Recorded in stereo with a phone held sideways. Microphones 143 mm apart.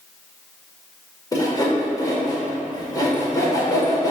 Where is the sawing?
25° left (ahead or behind), 1.6 m.